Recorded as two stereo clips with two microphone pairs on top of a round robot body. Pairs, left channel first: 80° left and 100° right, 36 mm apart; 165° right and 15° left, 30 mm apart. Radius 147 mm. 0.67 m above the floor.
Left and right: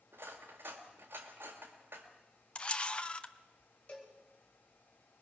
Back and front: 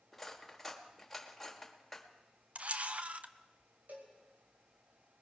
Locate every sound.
0.1 s cutlery clinking: 80° right, 1.7 m
2.5 s a camera shutter: 40° left, 1.0 m
3.9 s a cowbell: 30° left, 4.5 m